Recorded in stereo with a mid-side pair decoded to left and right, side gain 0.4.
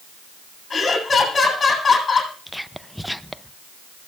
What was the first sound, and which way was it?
Laughter, 35° left.